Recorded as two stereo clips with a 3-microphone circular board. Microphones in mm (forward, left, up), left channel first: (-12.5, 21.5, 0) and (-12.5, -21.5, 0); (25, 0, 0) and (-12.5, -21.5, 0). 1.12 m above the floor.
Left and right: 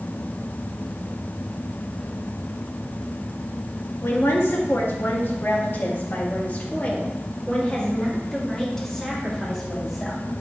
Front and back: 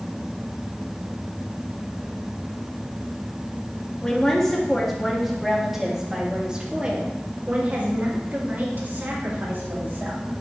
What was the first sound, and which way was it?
A woman speaking, 105° left.